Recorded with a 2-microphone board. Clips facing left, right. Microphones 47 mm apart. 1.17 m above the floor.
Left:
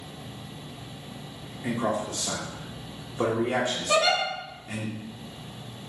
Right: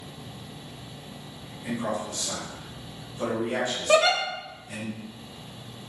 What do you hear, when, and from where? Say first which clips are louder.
1.6 s a man speaking: left 2 dB; 55° left (ahead or behind), 0.9 m
3.9 s a giggle: right 3 dB; 35° right (ahead or behind), 0.8 m